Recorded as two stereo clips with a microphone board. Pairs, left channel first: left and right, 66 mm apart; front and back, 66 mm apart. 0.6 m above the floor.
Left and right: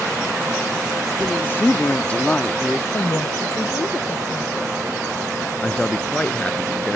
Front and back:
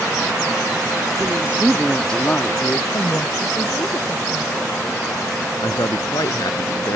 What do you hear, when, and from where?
1.2 s a woman speaking: 135° left; by 2.8 s 10° left
2.9 s a woman speaking: 45° left
5.6 s a man speaking: 15° left